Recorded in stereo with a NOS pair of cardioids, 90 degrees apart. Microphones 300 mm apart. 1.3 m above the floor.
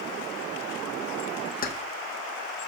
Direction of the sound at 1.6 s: 30° left.